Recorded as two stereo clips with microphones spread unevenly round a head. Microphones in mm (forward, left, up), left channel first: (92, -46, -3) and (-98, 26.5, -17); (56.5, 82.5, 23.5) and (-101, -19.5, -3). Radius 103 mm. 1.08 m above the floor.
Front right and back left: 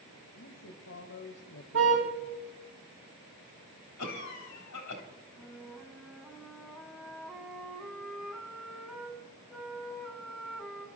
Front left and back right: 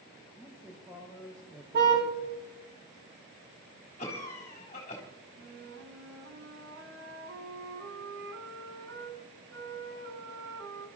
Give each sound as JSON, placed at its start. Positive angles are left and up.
{"t": 0.4, "sound": "a man speaking", "azimuth_deg": -55, "distance_m": 1.9}
{"t": 1.7, "sound": "a car horn", "azimuth_deg": -175, "distance_m": 4.5}
{"t": 4.0, "sound": "a cough", "azimuth_deg": -30, "distance_m": 3.5}
{"t": 5.4, "sound": "a flute", "azimuth_deg": -110, "distance_m": 2.0}